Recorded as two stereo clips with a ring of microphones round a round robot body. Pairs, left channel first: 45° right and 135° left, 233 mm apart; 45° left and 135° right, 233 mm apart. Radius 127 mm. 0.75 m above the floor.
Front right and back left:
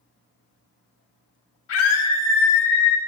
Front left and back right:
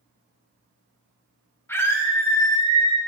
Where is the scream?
35° right, 3.5 m; by 3.0 s 25° right, 4.5 m.